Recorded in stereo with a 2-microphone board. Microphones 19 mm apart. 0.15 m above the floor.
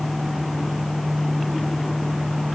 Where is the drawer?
No drawer in this recording.